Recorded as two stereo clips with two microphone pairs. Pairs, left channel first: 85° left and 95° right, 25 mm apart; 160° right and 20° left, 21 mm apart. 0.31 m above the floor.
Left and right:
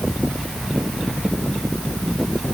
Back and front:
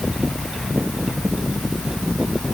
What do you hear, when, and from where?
Only background noise.